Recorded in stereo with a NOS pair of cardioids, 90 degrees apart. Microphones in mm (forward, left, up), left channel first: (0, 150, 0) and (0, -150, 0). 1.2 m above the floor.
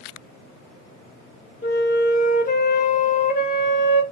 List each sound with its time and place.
1.6 s a flute: 30° left, 1.2 m